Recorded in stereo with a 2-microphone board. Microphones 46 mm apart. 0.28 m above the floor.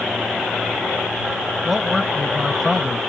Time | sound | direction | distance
1.6 | a man speaking | 5° left (ahead or behind) | ?